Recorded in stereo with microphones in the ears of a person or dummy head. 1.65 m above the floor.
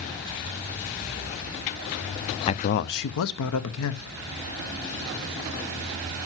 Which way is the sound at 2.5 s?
25° left (ahead or behind).